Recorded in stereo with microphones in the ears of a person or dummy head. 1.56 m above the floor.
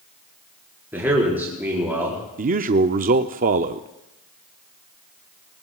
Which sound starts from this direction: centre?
A man speaking, at 0.9 s.